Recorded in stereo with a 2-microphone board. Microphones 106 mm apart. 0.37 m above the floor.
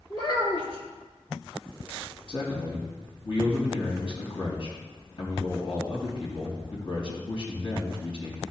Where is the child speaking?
45° left (ahead or behind), 4 m.